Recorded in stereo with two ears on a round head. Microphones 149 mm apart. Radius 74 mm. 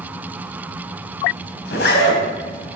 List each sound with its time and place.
1.6 s a zipper: 75° left (ahead or behind), 3.5 m